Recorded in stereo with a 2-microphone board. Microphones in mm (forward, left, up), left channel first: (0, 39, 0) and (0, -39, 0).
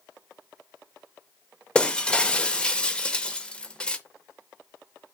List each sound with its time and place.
1.8 s breaking glass: 10° left (ahead or behind), 0.5 m